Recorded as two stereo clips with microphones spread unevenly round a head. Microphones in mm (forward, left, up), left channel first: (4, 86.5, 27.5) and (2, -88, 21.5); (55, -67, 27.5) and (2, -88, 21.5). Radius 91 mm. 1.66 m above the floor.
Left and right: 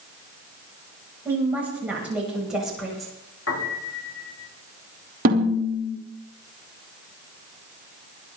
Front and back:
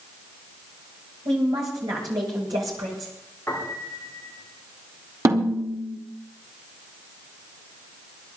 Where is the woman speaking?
170° right, 8.5 m; by 3.1 s 175° left, 8 m.